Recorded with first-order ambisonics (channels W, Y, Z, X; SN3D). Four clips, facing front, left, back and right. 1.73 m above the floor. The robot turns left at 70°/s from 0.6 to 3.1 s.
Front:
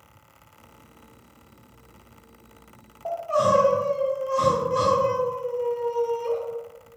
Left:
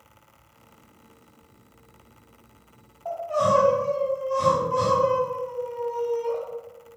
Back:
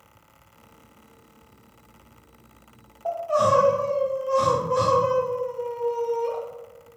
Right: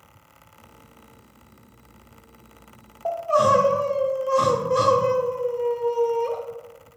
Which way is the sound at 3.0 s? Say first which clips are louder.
Right 4 dB, back 1 dB; 85° right.